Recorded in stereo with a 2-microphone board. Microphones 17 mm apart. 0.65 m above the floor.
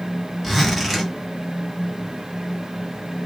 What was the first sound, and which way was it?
A zipper, 15° right (ahead or behind).